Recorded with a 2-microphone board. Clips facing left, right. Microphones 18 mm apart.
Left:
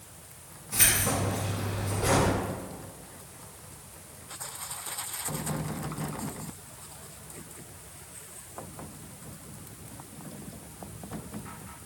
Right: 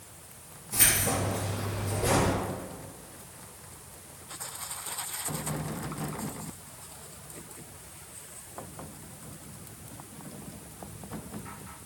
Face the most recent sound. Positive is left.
turn(degrees=45)  # may be behind; listen again after turning